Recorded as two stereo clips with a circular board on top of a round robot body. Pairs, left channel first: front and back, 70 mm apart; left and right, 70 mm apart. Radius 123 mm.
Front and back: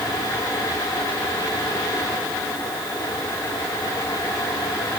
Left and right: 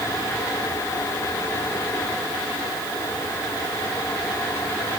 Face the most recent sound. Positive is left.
No sound to turn to.